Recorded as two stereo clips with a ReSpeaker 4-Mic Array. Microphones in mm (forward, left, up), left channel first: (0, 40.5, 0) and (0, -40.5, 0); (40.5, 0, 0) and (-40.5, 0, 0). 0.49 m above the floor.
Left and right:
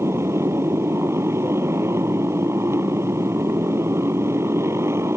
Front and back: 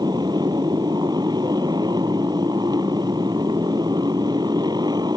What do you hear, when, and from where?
0.0 s a motorcycle: 145° right